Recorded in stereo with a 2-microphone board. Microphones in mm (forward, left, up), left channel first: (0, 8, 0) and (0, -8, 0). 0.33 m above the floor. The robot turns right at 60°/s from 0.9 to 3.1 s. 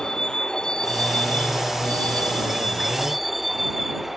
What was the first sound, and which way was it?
A vehicle, 40° left (ahead or behind).